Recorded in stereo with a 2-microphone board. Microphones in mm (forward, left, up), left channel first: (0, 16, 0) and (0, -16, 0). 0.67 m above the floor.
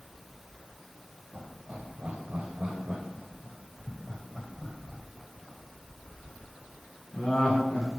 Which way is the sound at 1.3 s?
65° right (ahead or behind).